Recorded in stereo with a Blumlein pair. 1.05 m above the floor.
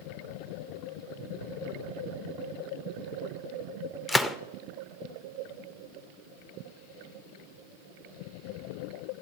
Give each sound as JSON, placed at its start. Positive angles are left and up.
{"t": 4.1, "sound": "a gunshot", "azimuth_deg": 5, "distance_m": 0.6}